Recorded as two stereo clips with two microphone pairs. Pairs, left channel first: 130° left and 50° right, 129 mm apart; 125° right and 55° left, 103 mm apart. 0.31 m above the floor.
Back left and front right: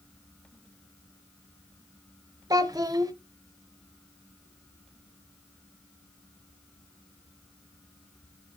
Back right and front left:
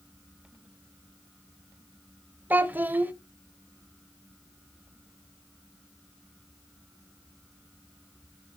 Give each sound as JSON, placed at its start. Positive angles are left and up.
{"t": 2.5, "sound": "a child speaking", "azimuth_deg": -5, "distance_m": 0.5}